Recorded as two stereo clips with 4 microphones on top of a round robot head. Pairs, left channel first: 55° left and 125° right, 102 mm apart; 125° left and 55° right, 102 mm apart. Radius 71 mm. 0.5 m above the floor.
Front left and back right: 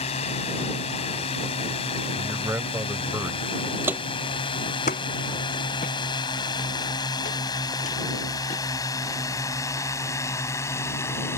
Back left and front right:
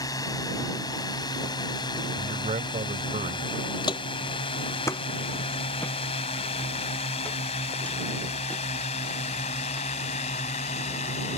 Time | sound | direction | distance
0.0 | a drone | 70° left | ?
2.1 | a man speaking | 60° right | ?
3.8 | footsteps | 175° left | ?